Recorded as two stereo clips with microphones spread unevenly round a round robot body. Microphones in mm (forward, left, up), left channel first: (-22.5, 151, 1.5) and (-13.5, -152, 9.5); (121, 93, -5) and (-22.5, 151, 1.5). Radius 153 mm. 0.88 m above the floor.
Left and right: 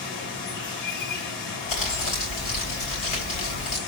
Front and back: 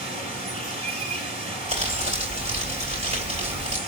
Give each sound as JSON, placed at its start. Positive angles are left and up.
{"t": 0.0, "sound": "running water", "azimuth_deg": 110, "distance_m": 3.5}
{"t": 1.7, "sound": "crumpling", "azimuth_deg": 115, "distance_m": 3.5}